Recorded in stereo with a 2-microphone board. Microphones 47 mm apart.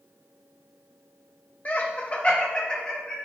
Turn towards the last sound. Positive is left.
turn(degrees=15)  # may be behind; listen again after turning